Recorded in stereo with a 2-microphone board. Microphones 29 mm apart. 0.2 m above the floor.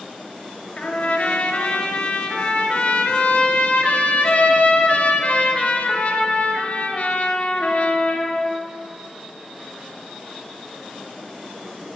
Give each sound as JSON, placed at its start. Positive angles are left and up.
{"t": 0.8, "sound": "a trumpet", "side_deg": 45, "distance_m": 1.7}